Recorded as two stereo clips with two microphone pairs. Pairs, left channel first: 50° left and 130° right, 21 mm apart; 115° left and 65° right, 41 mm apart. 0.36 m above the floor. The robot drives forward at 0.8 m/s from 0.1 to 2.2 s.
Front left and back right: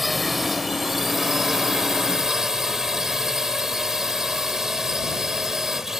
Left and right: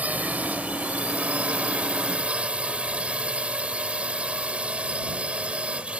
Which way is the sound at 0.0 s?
45° right.